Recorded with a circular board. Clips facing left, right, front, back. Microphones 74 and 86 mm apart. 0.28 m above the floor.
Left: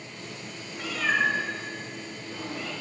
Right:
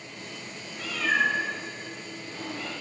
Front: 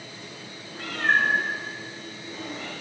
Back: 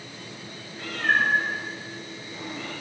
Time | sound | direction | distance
0.8 | a cat meowing | 10° left | 1.3 m